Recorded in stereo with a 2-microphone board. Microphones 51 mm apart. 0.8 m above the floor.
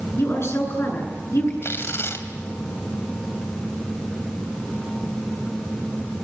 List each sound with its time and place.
0.2 s a woman speaking: 55° left (ahead or behind), 8 m
1.6 s tearing paper: 55° left (ahead or behind), 2.5 m